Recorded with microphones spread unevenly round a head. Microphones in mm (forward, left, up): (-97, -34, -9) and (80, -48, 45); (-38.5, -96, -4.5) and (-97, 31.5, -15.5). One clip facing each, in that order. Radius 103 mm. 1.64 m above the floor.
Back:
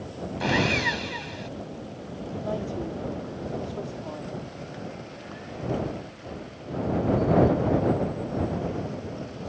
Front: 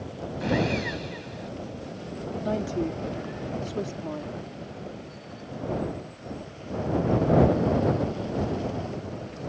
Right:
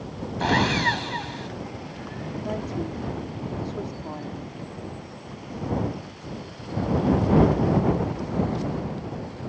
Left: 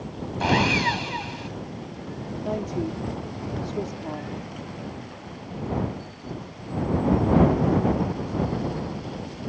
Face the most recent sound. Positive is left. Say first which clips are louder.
# front 4 dB, left 3 dB
turn(degrees=40)